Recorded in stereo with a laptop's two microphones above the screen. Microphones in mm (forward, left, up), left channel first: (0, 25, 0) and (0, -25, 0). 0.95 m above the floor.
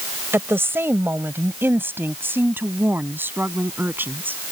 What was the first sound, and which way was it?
A woman speaking, 55° right (ahead or behind).